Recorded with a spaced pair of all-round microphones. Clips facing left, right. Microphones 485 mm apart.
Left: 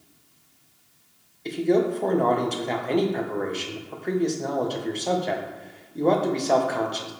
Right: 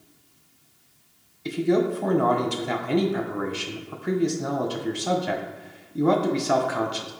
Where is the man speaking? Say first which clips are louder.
Even; 25° right (ahead or behind), 0.8 m.